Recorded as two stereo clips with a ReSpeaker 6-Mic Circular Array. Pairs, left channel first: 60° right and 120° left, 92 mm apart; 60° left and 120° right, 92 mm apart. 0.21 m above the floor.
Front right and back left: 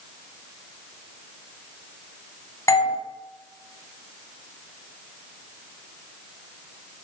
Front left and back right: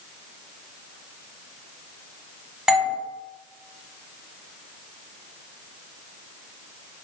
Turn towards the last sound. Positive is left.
turn(degrees=-45)